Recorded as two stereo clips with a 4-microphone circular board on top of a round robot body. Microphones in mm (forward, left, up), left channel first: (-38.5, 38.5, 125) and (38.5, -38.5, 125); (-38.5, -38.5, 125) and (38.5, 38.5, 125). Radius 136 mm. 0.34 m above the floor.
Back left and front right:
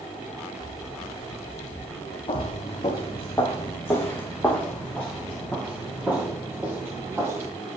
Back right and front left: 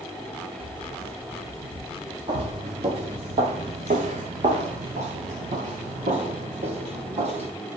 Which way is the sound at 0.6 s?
80° left.